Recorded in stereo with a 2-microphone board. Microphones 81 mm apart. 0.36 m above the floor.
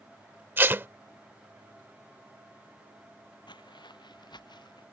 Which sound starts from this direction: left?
Footsteps, at 3.5 s.